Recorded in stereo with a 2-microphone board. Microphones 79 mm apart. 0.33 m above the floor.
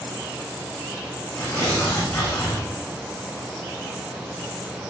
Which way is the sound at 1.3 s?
35° left (ahead or behind).